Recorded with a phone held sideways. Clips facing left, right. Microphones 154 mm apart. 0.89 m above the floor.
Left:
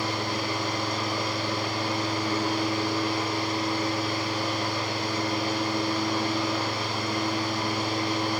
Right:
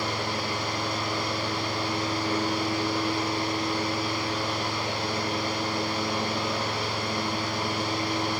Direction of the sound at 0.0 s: 45° left (ahead or behind).